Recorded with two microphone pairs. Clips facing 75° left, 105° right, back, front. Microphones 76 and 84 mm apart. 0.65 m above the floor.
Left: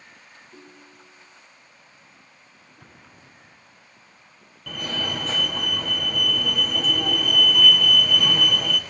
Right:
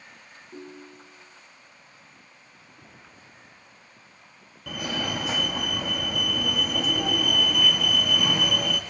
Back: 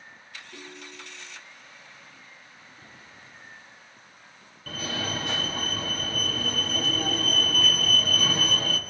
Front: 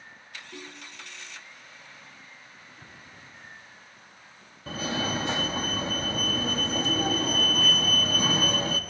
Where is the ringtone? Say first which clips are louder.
Right 8 dB, back 1 dB; 60° right, 3.5 m.